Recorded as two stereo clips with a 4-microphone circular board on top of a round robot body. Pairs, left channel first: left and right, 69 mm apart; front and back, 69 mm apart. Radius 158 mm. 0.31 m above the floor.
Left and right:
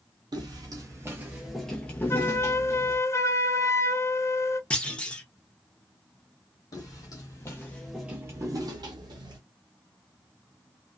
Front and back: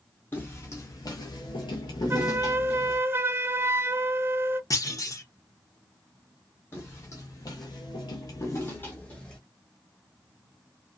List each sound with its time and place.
0.3 s footsteps: 60° right, 0.8 m; by 3.0 s 50° left, 1.0 m
2.1 s a flute: 130° left, 0.6 m
4.7 s a clunk: 20° left, 1.1 m
6.7 s footsteps: 60° left, 1.2 m; by 9.4 s 75° right, 1.2 m